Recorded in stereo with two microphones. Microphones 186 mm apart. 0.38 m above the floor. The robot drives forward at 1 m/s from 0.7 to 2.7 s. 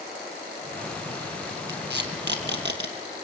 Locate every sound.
1.7 s tape being pulled: 85° right, 3.5 m; by 2.9 s 75° right (ahead or behind), 3.5 m